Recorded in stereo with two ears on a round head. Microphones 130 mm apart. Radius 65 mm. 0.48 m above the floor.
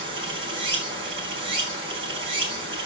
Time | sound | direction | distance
0.0 | running water | 35° right (ahead or behind) | 4 m